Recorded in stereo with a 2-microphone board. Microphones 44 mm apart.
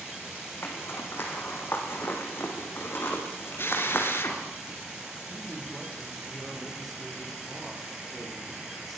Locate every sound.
0.6 s a zipper: 55° left (ahead or behind), 5.5 m
3.6 s a drill: 55° left (ahead or behind), 4 m
5.3 s a man speaking: 5° left (ahead or behind), 9.5 m